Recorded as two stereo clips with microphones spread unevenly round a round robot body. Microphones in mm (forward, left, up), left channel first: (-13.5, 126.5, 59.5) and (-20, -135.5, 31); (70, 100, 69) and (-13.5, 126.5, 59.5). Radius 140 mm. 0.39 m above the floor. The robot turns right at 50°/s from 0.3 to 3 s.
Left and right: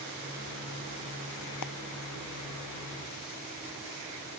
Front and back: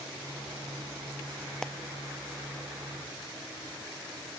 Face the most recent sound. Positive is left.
turn(degrees=135)